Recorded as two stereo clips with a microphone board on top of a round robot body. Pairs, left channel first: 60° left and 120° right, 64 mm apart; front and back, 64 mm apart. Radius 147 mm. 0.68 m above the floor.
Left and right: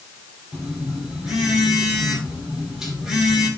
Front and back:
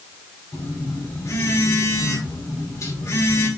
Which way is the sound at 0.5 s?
35° right.